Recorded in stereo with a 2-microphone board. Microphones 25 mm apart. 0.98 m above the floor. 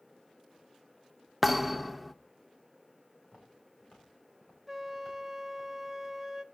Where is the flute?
15° right (ahead or behind), 0.5 m.